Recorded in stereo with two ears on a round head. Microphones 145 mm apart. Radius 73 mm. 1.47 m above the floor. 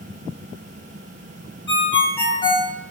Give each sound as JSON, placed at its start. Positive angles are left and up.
{"t": 1.7, "sound": "a ringtone", "side_deg": 30, "distance_m": 1.1}